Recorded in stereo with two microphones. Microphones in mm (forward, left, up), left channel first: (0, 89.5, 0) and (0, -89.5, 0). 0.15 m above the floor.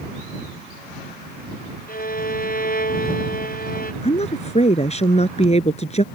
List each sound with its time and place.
1.9 s a violin: 55° left (ahead or behind)
4.0 s a woman speaking: 35° left (ahead or behind)